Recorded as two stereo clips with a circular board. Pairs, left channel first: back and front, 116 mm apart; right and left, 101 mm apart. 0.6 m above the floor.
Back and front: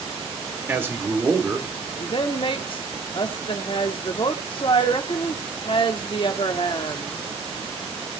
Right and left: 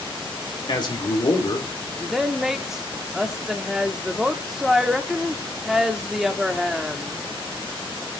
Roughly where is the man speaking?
Ahead right.